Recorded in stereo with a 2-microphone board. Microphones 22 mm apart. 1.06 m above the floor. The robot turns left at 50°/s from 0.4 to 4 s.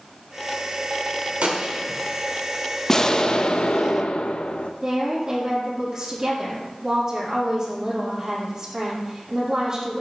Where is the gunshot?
105° right, 1.7 m; by 2.0 s 140° right, 1.7 m.